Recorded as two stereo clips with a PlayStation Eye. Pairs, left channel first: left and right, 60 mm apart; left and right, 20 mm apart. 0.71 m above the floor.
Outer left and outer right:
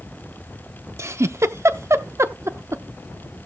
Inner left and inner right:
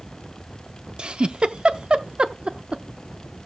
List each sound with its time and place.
1.0 s a giggle: 50° right (ahead or behind), 0.6 m